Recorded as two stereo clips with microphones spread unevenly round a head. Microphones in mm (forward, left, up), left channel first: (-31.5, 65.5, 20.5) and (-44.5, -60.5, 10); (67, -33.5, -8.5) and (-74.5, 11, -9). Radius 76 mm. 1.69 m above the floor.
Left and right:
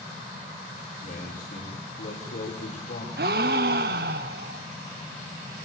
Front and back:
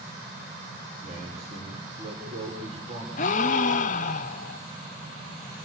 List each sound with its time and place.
1.0 s a man speaking: 110° left, 6 m
3.2 s a gasp: 60° right, 0.8 m